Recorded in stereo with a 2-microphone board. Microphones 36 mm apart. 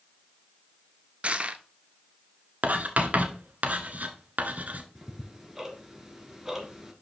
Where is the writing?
50° right (ahead or behind), 1.4 m.